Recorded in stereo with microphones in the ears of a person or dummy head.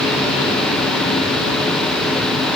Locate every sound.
Only background noise.